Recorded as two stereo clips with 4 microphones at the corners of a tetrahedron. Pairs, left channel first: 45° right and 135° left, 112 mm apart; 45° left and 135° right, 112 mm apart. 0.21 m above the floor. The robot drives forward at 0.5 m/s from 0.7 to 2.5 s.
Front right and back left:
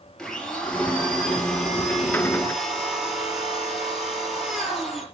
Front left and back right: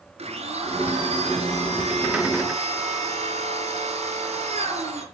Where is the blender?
130° right, 4.5 m; by 5.0 s 140° right, 5 m.